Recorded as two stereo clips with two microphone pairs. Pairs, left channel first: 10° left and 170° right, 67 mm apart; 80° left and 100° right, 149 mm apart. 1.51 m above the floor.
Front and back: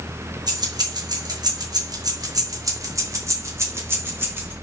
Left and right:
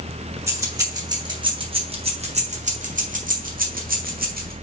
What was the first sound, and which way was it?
Keys jangling, 175° right.